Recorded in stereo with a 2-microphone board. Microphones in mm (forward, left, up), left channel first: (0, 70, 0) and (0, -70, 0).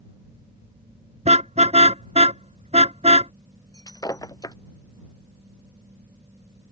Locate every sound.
1.2 s a car horn: 50° right (ahead or behind)
3.7 s breaking glass: 25° left (ahead or behind)